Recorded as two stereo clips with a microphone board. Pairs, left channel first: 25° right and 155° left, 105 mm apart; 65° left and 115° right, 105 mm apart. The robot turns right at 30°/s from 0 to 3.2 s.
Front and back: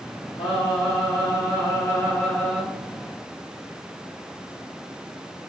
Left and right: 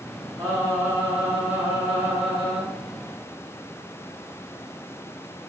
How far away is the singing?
About 1.1 m.